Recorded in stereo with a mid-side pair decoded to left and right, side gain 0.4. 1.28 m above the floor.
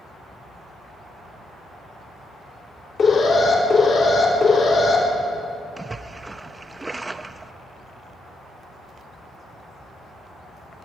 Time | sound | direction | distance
3.0 | an alarm | 60° left | 5 m
5.8 | a splash | 20° right | 0.6 m